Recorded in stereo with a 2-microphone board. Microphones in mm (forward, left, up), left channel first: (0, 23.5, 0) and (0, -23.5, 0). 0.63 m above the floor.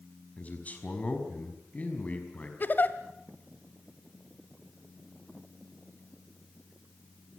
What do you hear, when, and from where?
0.4 s a man speaking: 30° left (ahead or behind), 4.5 m
2.6 s a giggle: 45° left (ahead or behind), 1.3 m